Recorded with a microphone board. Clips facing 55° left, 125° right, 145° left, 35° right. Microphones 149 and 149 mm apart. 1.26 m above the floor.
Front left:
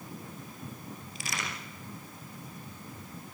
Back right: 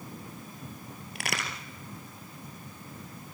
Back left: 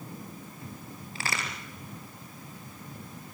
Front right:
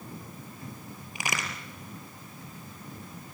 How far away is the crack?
About 4.5 m.